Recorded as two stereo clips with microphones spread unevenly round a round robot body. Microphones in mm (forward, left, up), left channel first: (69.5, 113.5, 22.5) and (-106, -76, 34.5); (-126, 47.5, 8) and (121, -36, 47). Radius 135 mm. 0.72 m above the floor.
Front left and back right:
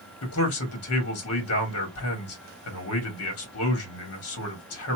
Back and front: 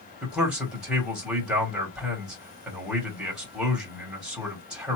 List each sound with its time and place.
0.2 s a man speaking: 70° left, 1.5 m